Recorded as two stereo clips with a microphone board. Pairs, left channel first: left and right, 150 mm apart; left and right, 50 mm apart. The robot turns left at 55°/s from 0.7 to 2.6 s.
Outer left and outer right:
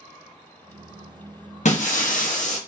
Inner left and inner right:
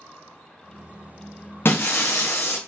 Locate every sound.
1.6 s breaking glass: 115° left, 0.6 m; by 2.6 s 65° left, 0.6 m